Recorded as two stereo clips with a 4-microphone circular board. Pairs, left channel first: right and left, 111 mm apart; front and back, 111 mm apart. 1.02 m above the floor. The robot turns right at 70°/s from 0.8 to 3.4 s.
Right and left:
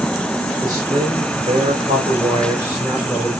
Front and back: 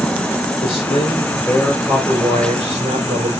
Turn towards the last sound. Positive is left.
turn(degrees=-150)